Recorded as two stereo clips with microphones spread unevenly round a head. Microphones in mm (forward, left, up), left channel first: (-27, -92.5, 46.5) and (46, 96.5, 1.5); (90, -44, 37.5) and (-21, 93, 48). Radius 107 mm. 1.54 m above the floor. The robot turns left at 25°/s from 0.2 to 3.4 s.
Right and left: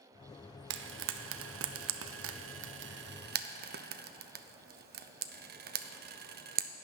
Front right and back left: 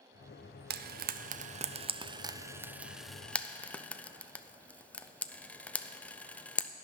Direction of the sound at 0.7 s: 100° left.